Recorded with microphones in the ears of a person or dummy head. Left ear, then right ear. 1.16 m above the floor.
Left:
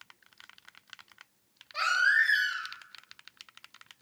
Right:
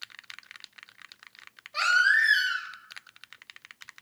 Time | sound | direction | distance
1.7 | a baby crying | 15° right (ahead or behind) | 1.8 m